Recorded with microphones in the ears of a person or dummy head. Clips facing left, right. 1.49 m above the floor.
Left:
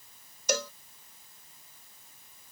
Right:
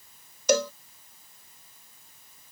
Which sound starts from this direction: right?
A cowbell, at 0.5 s.